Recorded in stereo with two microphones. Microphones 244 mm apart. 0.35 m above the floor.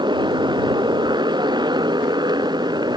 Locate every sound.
0.0 s a motorcycle: 20° right (ahead or behind); by 3.0 s 15° right (ahead or behind)